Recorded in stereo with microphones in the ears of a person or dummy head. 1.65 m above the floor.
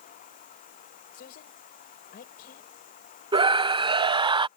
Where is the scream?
25° right (ahead or behind).